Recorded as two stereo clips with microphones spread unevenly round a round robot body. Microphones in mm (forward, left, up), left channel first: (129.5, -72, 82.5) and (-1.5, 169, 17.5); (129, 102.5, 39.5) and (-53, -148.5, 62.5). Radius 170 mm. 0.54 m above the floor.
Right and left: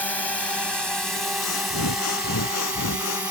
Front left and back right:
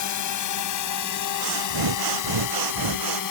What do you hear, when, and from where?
0.0 s a drone: 25° left; by 3.3 s 35° left
1.4 s breathing: 110° right